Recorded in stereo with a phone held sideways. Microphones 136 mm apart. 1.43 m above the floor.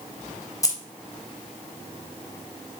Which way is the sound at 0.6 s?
25° left (ahead or behind).